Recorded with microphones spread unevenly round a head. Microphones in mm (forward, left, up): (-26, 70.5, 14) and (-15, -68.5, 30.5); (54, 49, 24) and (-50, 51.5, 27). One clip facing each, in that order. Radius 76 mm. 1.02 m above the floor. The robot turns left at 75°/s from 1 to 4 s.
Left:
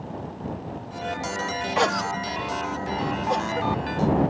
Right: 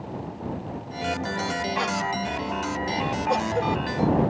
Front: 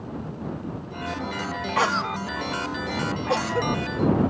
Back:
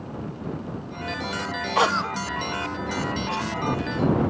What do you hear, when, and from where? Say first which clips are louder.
1.8 s a cough: left 3 dB, back 2 dB; 115° left; by 4.3 s 50° right